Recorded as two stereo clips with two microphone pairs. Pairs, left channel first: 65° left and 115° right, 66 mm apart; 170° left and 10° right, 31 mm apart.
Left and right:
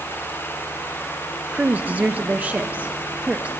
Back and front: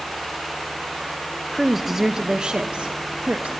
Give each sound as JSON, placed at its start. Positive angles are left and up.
{"t": 1.5, "sound": "a woman speaking", "azimuth_deg": -120, "distance_m": 0.8}